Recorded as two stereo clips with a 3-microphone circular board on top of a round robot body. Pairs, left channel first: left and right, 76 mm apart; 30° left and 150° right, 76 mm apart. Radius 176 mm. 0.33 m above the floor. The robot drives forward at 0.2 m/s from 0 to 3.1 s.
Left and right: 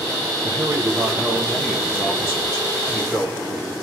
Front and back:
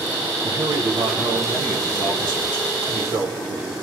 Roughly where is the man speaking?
Behind right.